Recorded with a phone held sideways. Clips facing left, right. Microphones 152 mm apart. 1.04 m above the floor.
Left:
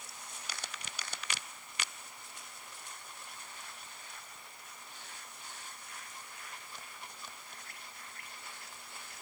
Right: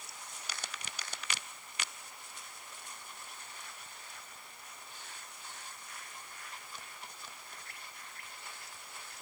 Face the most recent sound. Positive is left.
No sound to turn to.